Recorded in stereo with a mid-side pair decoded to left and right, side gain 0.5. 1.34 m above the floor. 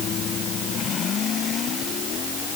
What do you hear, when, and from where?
Only background noise.